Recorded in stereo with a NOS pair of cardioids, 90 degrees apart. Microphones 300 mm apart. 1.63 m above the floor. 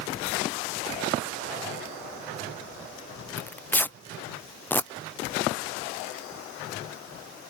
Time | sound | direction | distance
3.4 | tearing paper | 5° left | ?